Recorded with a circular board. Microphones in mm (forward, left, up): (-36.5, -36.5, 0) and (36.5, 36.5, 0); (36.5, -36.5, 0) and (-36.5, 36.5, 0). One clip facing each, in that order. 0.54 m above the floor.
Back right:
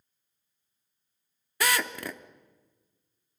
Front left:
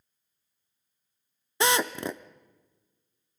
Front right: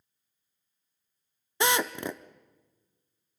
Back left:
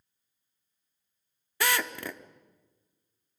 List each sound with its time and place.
1.6 s a drill: 5° left, 0.7 m